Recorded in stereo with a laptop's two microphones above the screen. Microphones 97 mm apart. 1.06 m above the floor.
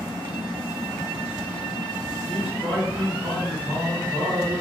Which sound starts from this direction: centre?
A man speaking, at 2.3 s.